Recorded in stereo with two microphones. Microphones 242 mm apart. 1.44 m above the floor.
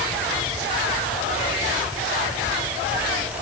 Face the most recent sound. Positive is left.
No sound to turn to.